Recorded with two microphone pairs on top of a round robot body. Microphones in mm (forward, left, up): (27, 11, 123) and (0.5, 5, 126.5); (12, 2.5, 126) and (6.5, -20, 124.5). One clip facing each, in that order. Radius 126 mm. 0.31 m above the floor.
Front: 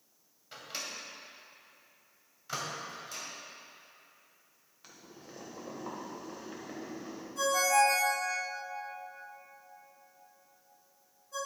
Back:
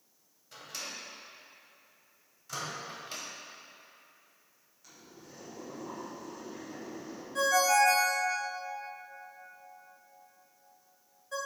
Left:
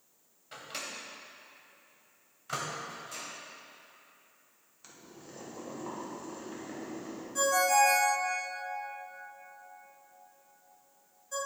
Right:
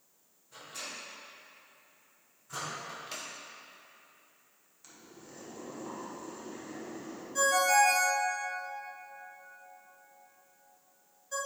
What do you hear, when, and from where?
0.5 s a microwave: 65° left, 1.9 m
2.9 s a microwave: 125° right, 1.9 m
4.8 s boiling: 10° left, 2 m
7.3 s a ringtone: 175° right, 2.0 m